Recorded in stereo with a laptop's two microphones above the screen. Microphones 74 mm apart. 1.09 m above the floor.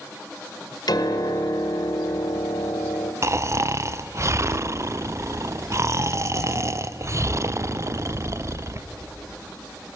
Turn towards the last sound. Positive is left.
turn(degrees=-40)  # may be behind; listen again after turning